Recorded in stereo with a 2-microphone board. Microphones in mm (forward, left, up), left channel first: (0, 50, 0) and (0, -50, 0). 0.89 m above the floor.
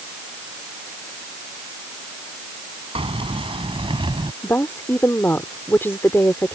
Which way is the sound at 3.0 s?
70° right (ahead or behind).